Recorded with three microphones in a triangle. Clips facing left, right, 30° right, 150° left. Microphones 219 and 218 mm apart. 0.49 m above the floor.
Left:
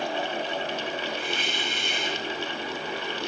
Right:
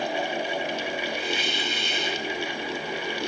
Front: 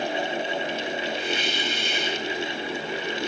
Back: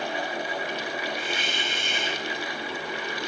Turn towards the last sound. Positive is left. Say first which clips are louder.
# right 2 dB, front 4 dB
turn(degrees=120)